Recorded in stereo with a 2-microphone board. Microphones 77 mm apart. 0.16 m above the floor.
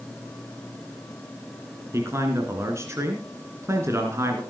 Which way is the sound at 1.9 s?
35° right (ahead or behind).